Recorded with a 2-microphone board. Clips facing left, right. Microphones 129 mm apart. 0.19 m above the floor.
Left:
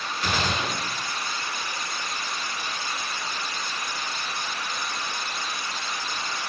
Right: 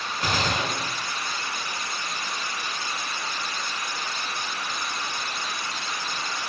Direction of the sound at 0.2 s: 45° right (ahead or behind).